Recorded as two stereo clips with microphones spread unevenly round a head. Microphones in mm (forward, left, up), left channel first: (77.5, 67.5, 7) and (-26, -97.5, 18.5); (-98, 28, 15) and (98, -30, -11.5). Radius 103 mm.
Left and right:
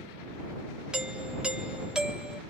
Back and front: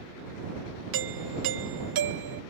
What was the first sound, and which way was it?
A doorbell, 35° right.